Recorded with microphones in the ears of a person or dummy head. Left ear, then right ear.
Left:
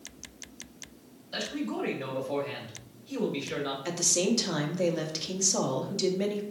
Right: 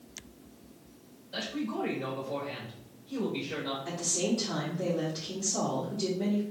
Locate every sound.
1.3 s a man speaking: 75° left (ahead or behind), 1.6 m
3.9 s a woman speaking: 70° left (ahead or behind), 1.1 m